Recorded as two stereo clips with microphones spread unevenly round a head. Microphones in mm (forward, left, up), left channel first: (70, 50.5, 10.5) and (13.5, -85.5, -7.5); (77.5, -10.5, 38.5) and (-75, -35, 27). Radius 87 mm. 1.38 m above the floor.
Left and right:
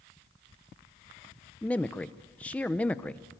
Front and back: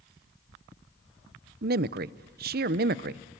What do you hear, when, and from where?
1.6 s a man speaking: 150° left, 0.6 m